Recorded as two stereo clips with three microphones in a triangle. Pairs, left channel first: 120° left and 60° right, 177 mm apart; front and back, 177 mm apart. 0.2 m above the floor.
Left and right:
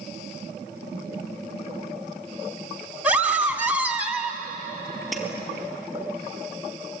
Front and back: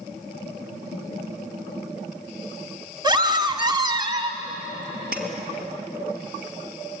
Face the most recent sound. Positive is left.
turn(degrees=-150)